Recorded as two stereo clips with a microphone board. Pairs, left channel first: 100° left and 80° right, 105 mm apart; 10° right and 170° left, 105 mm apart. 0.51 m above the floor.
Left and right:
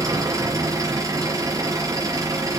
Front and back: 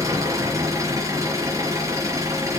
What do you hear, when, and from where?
0.0 s an engine running: 135° right, 6 m